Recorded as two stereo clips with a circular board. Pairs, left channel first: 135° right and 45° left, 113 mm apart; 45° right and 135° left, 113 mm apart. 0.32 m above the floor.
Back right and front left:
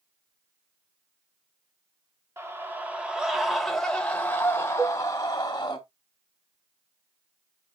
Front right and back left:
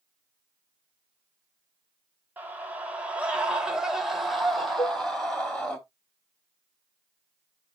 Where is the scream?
80° left, 1.7 m; by 5.8 s 120° right, 1.9 m.